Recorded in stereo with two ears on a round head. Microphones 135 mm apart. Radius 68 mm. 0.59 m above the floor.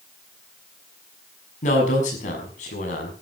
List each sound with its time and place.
1.6 s a man speaking: 50° left (ahead or behind), 6 m